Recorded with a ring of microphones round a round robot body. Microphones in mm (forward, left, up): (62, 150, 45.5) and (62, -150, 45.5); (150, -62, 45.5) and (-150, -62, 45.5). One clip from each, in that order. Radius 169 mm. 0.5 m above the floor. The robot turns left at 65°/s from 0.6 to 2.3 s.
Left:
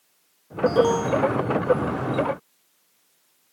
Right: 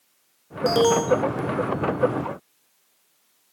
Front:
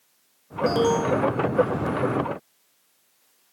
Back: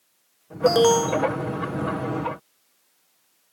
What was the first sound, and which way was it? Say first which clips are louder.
An alarm: right 1 dB, back 4 dB; 140° right.